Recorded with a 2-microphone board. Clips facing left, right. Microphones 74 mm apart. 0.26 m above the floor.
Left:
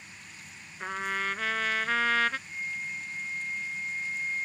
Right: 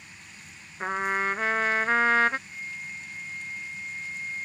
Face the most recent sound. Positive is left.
turn(degrees=30)  # may be behind; listen again after turning